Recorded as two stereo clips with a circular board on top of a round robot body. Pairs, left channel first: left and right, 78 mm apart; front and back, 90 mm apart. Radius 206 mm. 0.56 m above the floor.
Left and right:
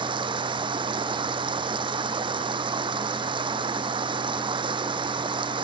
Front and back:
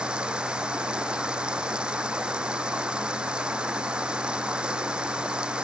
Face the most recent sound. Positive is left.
turn(degrees=-100)